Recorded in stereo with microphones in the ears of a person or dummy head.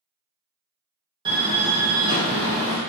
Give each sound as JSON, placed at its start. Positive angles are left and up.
{"t": 1.2, "sound": "a door slam", "side_deg": -20, "distance_m": 1.0}